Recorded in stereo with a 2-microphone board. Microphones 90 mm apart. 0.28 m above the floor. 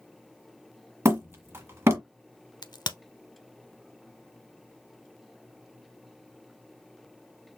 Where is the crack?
55° left (ahead or behind), 0.5 m.